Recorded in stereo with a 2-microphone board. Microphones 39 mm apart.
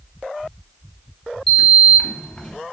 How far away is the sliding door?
About 0.8 m.